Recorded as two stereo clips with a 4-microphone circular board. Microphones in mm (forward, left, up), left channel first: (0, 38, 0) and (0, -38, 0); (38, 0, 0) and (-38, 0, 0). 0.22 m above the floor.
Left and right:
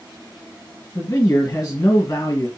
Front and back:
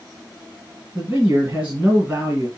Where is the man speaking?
120° left, 1.4 m.